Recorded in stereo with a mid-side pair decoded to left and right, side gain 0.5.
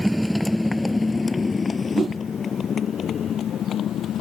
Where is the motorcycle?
5° left; by 4.2 s 60° left.